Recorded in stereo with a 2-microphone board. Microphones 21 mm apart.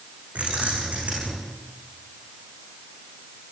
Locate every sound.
0.3 s keys jangling: 85° right, 9.5 m